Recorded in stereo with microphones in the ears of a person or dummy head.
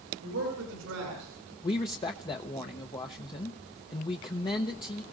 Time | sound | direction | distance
0.2 | a man speaking | 75° right (ahead or behind) | 8.5 m
1.6 | a man speaking | 25° left (ahead or behind) | 0.8 m